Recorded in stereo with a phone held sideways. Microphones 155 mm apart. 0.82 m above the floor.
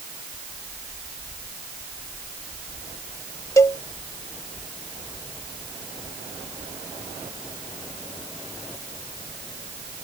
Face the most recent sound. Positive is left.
turn(degrees=20)  # may be behind; listen again after turning